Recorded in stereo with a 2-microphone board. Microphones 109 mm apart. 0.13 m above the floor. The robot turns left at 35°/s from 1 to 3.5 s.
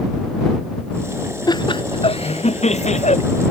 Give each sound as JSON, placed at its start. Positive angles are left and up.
{"t": 1.5, "sound": "laughter", "azimuth_deg": 140}